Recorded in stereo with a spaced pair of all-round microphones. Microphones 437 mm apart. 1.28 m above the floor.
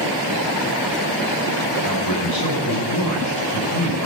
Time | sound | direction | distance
1.8 | a man speaking | 65° left (ahead or behind) | 6 m